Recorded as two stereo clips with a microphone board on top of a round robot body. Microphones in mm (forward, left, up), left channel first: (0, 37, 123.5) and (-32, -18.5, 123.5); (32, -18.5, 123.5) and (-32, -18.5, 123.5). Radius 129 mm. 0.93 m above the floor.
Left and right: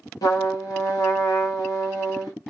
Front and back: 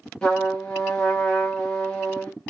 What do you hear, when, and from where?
0.2 s a trumpet: 80° left, 0.6 m